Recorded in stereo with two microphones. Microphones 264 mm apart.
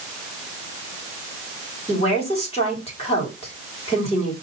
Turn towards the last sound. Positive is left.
turn(degrees=25)  # may be behind; listen again after turning